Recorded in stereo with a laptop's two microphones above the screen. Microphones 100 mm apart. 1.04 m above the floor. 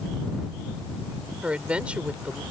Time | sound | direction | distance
1.4 | a woman speaking | 10° right (ahead or behind) | ?